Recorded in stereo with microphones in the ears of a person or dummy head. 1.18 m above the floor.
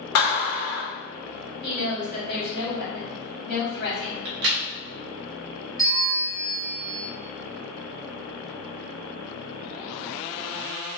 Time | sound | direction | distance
0.1 | a clap | 75° left (ahead or behind) | 1.4 m
1.6 | a woman speaking | 55° left (ahead or behind) | 1.9 m
4.2 | a crack | 50° right (ahead or behind) | 0.6 m
5.8 | a bell | 5° left (ahead or behind) | 1.1 m